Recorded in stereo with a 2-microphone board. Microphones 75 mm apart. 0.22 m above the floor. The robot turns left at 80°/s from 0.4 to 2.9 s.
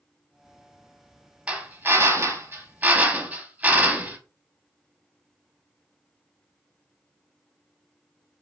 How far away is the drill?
About 0.6 m.